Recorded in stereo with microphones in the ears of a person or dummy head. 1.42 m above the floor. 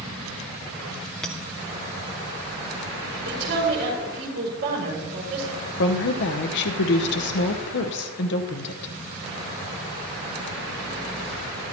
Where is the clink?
5° left (ahead or behind), 0.5 m.